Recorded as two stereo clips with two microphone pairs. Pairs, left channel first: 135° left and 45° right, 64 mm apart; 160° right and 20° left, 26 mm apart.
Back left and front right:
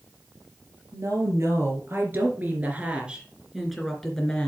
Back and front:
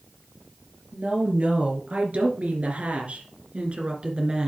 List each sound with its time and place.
0.9 s a woman speaking: 10° right, 3.5 m; by 4.5 s 65° left, 2.5 m